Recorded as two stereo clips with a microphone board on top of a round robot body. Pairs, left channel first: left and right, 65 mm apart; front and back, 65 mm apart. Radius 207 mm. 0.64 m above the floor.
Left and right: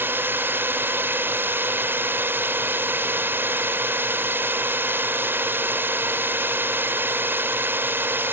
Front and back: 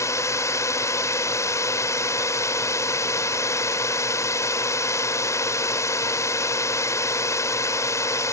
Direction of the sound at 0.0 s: 35° right.